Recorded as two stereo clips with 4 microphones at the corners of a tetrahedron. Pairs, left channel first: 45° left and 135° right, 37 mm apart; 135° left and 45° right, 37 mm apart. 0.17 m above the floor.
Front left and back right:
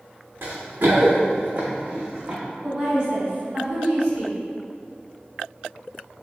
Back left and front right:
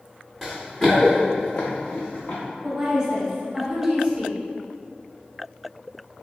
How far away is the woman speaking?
About 1.5 m.